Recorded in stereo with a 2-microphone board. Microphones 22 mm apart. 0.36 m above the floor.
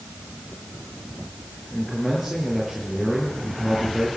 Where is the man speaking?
5° right (ahead or behind), 7 m.